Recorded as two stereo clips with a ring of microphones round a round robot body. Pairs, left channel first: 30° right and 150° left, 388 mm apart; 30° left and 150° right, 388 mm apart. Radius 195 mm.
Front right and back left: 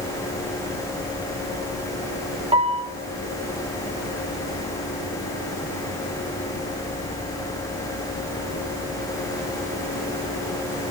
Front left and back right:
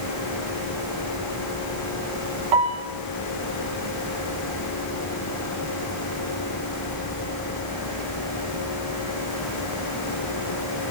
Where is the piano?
135° right, 3.5 m.